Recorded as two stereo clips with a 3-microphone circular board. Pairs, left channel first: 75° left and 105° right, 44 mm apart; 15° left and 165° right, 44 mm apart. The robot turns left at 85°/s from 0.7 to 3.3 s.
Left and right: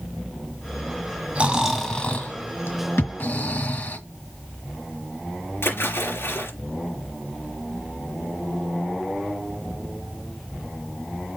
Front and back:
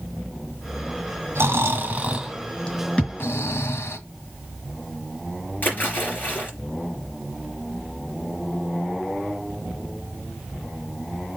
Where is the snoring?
160° right, 1.8 m; by 4.0 s 35° left, 1.8 m.